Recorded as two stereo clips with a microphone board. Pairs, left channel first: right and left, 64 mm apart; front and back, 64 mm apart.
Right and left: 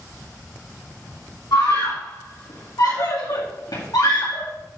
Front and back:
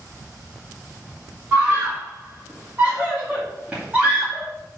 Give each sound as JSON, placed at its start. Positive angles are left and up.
{"t": 1.5, "sound": "a scream", "azimuth_deg": -110, "distance_m": 2.5}